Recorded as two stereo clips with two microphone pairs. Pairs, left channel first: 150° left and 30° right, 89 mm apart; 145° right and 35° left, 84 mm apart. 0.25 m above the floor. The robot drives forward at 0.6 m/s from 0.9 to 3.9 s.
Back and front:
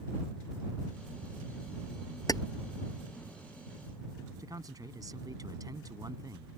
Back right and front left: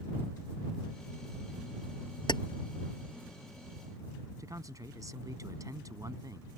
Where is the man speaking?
Straight ahead.